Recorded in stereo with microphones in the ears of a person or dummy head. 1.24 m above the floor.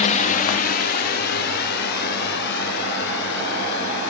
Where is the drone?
35° left (ahead or behind); by 4.1 s 60° left (ahead or behind).